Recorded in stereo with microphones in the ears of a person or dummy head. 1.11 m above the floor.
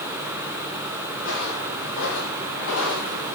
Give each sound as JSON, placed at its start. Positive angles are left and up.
{"t": 1.1, "sound": "footsteps", "side_deg": 75, "distance_m": 6.5}